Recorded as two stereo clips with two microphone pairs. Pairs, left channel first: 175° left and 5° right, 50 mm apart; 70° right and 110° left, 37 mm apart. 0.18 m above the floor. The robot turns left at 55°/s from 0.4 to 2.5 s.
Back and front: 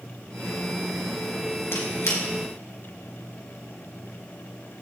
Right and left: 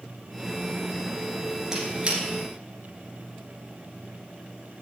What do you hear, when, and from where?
1.7 s a squeak: 175° right, 2.5 m; by 2.2 s 160° left, 2.5 m